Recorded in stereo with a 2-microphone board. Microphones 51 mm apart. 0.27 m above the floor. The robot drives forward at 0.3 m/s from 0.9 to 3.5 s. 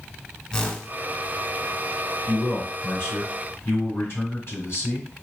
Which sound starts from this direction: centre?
A whoosh, at 0.5 s.